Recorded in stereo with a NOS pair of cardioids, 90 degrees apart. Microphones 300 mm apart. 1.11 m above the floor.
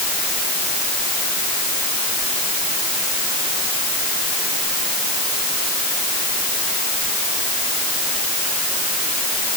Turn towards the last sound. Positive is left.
No sound to turn to.